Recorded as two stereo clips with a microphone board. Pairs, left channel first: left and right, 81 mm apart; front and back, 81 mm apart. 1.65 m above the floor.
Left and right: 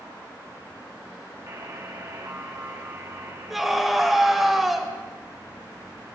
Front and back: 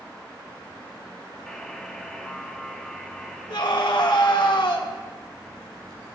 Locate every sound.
1.5 s a buzzer: 80° right, 0.9 m
3.5 s a scream: 5° right, 1.6 m